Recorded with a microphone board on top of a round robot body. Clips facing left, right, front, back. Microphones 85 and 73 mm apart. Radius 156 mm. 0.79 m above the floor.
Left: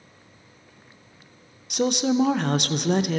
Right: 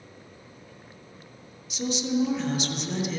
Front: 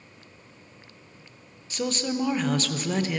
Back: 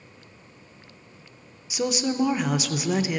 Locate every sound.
1.7 s a woman speaking: 100° left, 0.5 m